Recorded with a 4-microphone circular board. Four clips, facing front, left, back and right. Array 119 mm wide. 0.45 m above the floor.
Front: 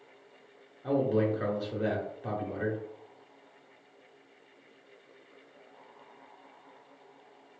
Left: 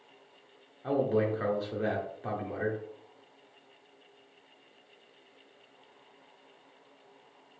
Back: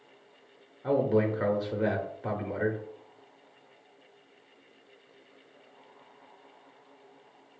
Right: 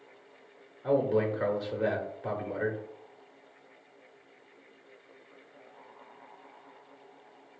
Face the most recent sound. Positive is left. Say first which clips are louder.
# right 1 dB, back 2 dB
turn(degrees=180)